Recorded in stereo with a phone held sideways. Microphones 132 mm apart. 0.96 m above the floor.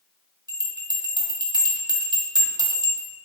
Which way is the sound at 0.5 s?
30° right (ahead or behind).